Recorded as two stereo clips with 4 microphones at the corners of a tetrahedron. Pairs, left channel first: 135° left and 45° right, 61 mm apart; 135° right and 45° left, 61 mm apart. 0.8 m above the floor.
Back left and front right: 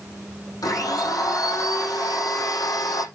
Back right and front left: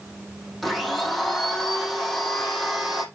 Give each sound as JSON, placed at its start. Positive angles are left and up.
{"t": 0.6, "sound": "a blender", "azimuth_deg": 135, "distance_m": 5.0}